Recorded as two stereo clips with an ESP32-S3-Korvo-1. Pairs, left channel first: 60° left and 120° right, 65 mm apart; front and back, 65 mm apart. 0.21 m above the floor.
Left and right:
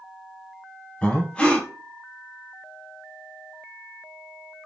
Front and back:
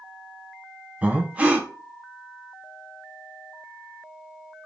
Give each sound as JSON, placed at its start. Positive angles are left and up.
{"t": 1.0, "sound": "breathing", "azimuth_deg": 125, "distance_m": 1.1}